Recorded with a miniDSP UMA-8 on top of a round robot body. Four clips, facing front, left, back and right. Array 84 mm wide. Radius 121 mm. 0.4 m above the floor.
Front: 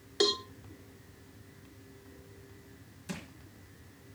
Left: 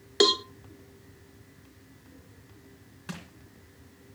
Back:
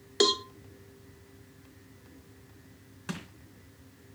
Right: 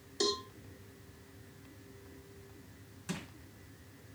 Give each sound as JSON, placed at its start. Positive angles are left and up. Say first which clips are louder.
{"t": 0.2, "sound": "a cowbell", "louder": "left 10 dB, back 3 dB", "azimuth_deg": 110, "distance_m": 0.9}
{"t": 3.1, "sound": "crushing", "louder": "even, back 3 dB", "azimuth_deg": 160, "distance_m": 3.5}